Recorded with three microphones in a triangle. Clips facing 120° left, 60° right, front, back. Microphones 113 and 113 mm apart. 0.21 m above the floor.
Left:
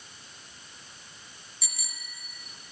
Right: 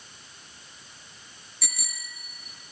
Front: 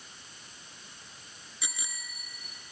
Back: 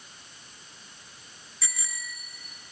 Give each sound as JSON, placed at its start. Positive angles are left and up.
{"t": 1.6, "sound": "a bicycle bell", "azimuth_deg": -70, "distance_m": 2.0}